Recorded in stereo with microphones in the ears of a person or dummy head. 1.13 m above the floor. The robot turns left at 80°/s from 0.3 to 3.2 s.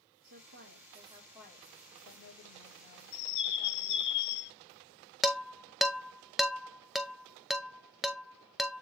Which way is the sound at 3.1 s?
70° left (ahead or behind).